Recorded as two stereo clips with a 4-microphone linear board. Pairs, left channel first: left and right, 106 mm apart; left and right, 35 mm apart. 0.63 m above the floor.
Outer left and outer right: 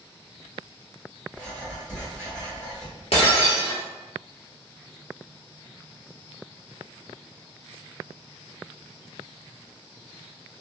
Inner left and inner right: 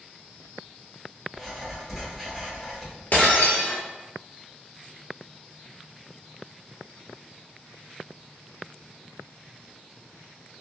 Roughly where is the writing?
Centre.